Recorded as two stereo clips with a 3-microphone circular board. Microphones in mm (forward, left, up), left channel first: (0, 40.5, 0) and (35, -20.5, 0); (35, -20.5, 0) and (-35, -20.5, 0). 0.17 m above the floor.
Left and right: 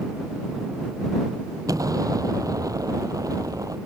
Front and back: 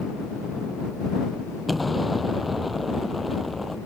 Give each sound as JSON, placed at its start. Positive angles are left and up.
{"t": 1.7, "sound": "an explosion", "azimuth_deg": -90}